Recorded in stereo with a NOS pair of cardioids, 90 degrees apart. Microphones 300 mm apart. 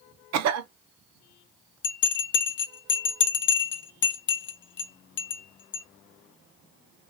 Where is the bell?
40° left, 0.7 m.